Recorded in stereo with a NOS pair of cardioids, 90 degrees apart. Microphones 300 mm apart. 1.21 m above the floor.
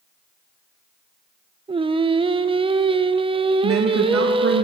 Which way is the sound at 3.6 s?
50° right.